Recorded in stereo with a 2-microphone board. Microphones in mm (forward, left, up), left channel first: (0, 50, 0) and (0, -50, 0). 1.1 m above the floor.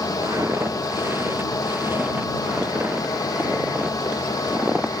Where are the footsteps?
25° right (ahead or behind); by 5.0 s 10° right (ahead or behind).